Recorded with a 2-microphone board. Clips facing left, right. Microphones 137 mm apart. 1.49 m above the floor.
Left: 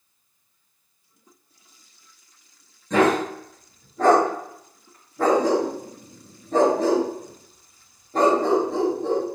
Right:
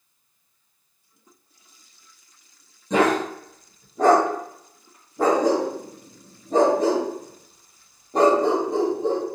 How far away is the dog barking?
About 0.9 m.